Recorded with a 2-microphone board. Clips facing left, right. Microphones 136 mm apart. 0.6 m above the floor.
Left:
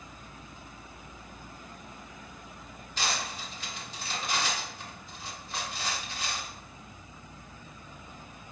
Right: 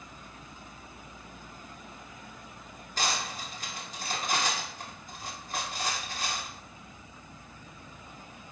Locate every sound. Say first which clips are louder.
3.0 s cutlery clinking: right 1 dB; 45° right (ahead or behind), 0.9 m